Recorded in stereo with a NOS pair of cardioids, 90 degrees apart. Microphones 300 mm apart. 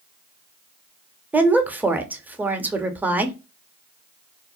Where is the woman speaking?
5° right, 0.6 m.